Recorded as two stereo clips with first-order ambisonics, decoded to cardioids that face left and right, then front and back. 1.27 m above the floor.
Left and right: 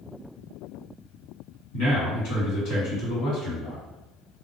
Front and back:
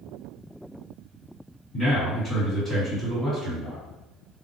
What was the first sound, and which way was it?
A man speaking, 70° left.